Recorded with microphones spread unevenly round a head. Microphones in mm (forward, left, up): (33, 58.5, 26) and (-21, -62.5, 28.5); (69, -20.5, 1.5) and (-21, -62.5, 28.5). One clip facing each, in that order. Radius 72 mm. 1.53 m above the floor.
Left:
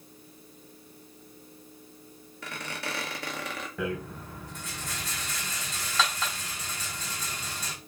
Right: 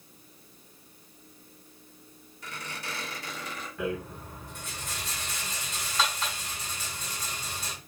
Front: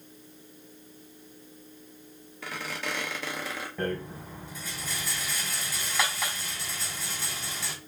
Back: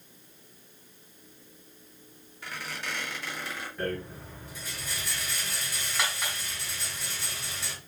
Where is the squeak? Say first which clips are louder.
Left 3 dB, front 3 dB; 35° left, 1.0 m.